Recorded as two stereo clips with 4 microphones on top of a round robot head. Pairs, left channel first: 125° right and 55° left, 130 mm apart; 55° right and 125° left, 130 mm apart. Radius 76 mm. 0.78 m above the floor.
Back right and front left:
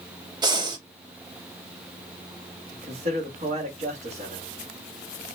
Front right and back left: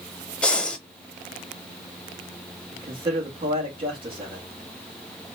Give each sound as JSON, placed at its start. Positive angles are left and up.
{"t": 0.4, "sound": "breathing", "azimuth_deg": 25, "distance_m": 0.8}
{"t": 2.7, "sound": "a man speaking", "azimuth_deg": 80, "distance_m": 1.6}